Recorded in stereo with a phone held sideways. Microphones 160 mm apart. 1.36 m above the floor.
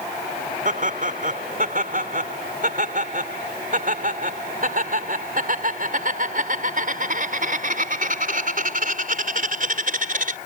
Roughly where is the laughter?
Right.